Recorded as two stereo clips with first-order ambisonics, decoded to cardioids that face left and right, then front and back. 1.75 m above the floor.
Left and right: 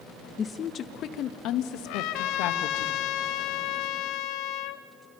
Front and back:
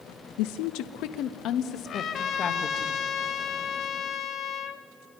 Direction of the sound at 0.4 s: 15° left.